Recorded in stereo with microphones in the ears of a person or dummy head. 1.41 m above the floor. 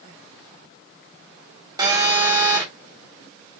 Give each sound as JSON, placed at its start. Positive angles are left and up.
{"t": 1.8, "sound": "a phone buzzing", "side_deg": -15, "distance_m": 0.8}